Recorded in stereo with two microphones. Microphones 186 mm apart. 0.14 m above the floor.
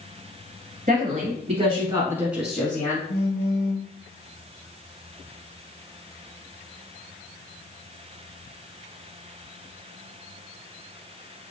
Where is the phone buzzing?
75° left (ahead or behind), 0.7 m.